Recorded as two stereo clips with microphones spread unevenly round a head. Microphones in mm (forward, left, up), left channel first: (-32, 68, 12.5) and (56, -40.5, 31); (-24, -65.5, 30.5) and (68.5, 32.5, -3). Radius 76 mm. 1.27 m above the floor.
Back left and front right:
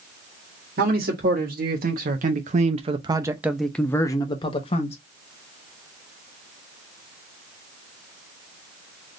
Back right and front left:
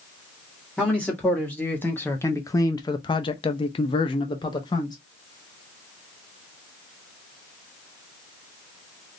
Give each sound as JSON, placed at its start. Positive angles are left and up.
{"t": 0.8, "sound": "a man speaking", "azimuth_deg": -45, "distance_m": 1.5}